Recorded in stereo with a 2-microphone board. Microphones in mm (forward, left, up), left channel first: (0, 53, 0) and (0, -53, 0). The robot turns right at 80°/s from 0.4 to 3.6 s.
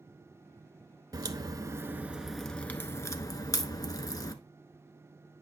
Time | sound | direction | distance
1.1 | a crack | 100° right | 0.7 m